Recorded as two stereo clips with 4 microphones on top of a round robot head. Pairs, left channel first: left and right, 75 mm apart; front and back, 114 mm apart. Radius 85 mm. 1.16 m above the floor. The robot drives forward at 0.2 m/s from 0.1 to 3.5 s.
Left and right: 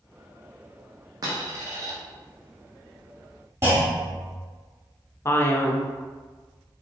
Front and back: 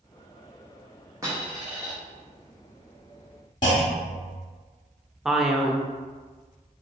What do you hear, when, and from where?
1.2 s a dropped coin: 115° right, 0.8 m; by 1.9 s 125° right, 0.8 m
3.6 s a clunk: 35° right, 0.7 m
5.2 s a man speaking: 95° left, 0.6 m